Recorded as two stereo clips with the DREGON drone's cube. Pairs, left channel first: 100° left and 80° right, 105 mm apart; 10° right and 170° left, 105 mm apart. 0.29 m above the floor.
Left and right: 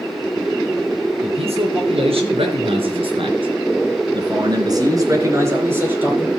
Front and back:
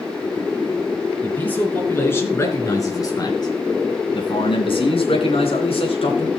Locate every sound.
1.2 s a man speaking: 85° right, 5 m; by 6.3 s 5° right, 4.5 m